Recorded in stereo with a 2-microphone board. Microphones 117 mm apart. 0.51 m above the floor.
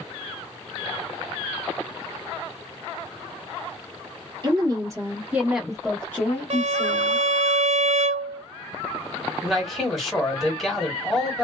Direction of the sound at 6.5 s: 60° right (ahead or behind).